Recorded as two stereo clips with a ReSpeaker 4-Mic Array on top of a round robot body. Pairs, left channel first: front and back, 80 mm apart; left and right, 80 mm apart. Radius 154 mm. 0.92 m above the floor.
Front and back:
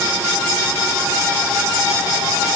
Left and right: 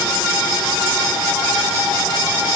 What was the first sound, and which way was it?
Only background noise.